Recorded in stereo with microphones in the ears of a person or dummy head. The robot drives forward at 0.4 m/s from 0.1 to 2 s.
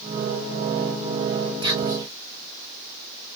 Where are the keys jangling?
I don't hear keys jangling.